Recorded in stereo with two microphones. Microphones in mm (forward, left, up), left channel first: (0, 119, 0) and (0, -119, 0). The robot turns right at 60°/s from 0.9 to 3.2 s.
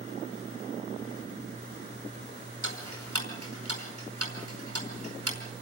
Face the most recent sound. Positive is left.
turn(degrees=-75)  # may be behind; listen again after turning